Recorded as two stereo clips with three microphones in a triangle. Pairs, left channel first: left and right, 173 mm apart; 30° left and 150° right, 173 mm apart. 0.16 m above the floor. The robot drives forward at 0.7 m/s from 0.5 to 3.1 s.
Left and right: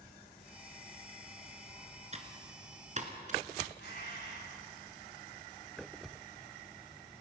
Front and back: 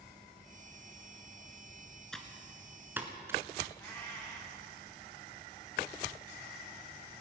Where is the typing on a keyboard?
55° right, 2 m; by 3.7 s 80° right, 2.0 m.